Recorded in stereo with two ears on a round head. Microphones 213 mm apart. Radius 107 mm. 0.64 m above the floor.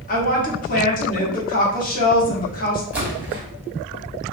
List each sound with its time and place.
0.1 s a woman speaking: 35° left (ahead or behind), 1.2 m
2.9 s a splash: 10° right (ahead or behind), 1.3 m